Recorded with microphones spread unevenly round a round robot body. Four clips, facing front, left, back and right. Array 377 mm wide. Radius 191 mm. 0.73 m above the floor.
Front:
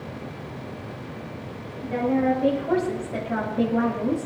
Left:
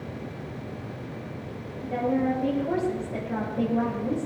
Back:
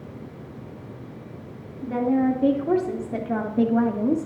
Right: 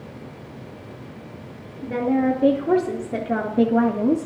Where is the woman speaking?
125° right, 2.5 m; by 4.3 s 95° right, 1.4 m.